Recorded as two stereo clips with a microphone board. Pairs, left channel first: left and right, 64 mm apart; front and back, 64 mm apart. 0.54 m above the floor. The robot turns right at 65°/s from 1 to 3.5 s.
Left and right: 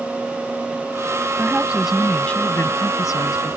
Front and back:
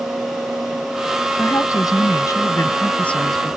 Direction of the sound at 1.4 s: 40° right.